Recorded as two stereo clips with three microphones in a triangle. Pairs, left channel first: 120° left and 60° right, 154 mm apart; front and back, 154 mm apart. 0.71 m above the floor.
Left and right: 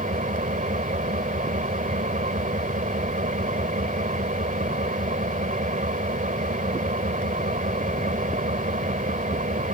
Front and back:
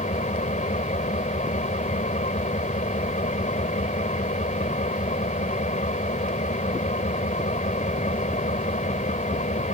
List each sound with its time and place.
0.0 s an engine running: 30° right